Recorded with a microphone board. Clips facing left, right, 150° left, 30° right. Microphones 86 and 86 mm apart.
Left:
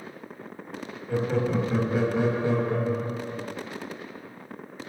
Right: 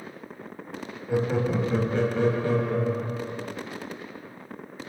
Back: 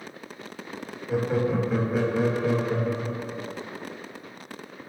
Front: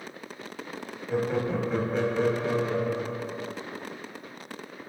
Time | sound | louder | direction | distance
1.1 | laughter | right 1 dB, back 2 dB | 135° right | 1.2 m